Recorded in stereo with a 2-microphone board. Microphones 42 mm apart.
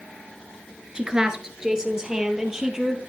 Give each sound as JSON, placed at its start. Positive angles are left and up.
{"t": 0.9, "sound": "a woman speaking", "side_deg": -15, "distance_m": 1.5}